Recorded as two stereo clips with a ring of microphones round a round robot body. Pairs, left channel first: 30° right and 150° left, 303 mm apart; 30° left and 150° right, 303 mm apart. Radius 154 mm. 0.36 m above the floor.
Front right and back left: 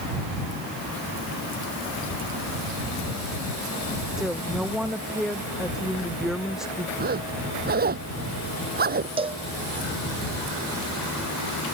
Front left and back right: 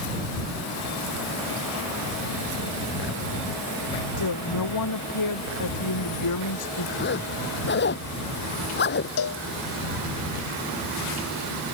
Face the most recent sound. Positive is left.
turn(degrees=75)